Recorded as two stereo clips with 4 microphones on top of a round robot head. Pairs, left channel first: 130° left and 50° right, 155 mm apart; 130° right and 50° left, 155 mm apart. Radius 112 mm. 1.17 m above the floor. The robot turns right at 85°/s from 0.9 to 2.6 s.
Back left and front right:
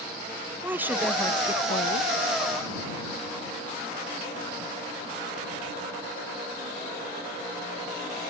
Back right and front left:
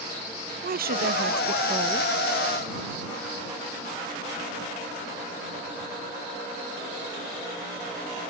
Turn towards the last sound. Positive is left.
turn(degrees=175)